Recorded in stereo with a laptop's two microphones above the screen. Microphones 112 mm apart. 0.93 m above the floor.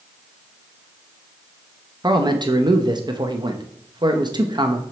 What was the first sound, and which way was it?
A man speaking, 40° right (ahead or behind).